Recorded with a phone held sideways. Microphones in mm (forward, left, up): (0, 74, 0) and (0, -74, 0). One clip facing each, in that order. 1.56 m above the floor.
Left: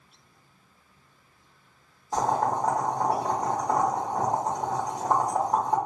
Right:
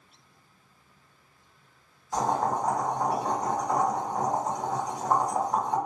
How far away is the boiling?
About 1.5 m.